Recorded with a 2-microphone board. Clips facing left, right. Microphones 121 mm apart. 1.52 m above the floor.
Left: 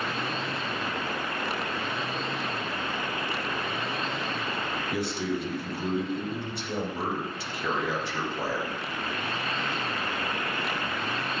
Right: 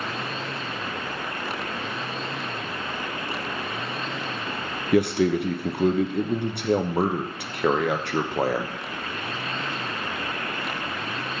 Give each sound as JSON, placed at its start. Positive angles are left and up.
{"t": 4.9, "sound": "a man speaking", "side_deg": -65, "distance_m": 0.7}